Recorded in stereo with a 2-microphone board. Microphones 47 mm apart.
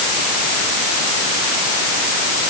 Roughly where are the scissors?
No scissors in this recording.